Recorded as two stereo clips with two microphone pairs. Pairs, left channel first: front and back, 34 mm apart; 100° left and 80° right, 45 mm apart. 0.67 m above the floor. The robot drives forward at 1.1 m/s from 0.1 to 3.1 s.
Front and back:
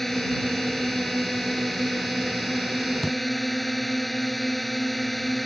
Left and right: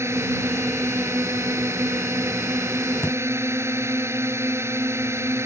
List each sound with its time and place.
0.0 s a drone: 80° right; by 5.5 s 85° right
3.0 s a thud: 95° left